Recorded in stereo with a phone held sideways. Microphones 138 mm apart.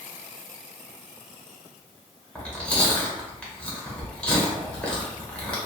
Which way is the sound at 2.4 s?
10° left (ahead or behind).